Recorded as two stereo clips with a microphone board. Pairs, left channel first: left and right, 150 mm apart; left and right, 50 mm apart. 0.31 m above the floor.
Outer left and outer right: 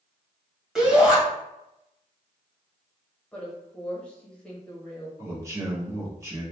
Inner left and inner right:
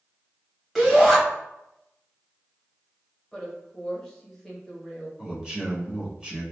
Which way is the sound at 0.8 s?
5° right (ahead or behind).